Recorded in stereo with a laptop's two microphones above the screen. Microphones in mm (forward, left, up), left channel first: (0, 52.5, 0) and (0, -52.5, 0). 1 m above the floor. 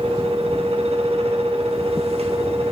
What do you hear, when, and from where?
0.0 s a fan: 70° right (ahead or behind), 1.5 m